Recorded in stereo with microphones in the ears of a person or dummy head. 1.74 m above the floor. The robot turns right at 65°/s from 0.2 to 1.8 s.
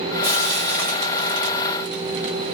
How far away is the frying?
About 1.4 m.